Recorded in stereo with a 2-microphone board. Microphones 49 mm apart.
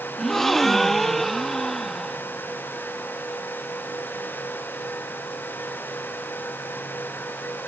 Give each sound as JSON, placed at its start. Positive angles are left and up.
{"t": 0.2, "sound": "a gasp", "side_deg": 5}